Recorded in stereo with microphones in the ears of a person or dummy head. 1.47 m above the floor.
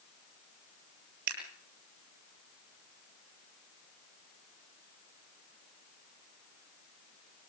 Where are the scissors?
60° right (ahead or behind), 7 m.